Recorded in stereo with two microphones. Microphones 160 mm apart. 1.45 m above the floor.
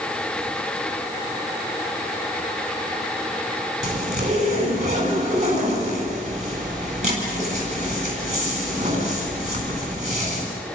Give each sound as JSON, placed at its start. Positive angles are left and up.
{"t": 3.8, "sound": "a zipper", "side_deg": -50, "distance_m": 9.0}